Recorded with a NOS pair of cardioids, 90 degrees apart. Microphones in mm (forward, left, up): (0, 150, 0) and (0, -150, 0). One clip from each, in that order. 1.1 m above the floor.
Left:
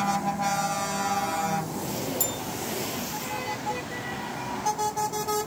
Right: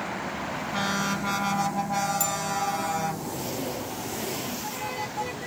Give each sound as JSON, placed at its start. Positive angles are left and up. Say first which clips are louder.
{"t": 2.2, "sound": "a bell", "louder": "right 3 dB", "azimuth_deg": 5, "distance_m": 1.8}